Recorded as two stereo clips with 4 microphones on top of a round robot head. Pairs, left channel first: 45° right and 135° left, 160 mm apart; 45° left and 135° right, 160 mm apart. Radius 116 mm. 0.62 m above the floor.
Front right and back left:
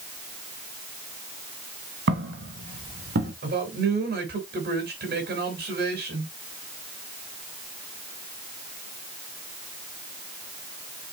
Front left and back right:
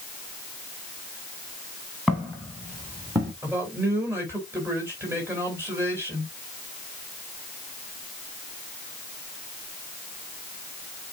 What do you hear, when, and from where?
2.1 s footsteps: 140° left, 4 m; by 3.3 s 155° left, 4 m
3.4 s a man speaking: 150° left, 4.5 m